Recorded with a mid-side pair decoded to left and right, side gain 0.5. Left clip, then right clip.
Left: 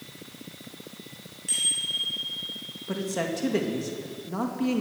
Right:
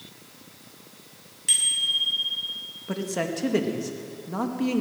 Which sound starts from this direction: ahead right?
A bicycle bell, at 1.5 s.